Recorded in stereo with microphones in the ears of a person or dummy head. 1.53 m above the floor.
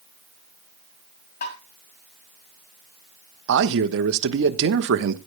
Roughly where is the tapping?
Left.